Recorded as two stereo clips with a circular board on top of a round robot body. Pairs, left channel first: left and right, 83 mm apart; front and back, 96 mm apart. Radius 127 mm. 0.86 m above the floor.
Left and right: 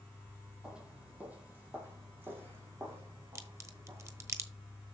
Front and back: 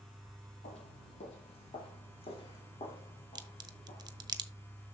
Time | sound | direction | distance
0.6 | footsteps | 10° right | 1.9 m
3.4 | a crack | 140° right | 1.3 m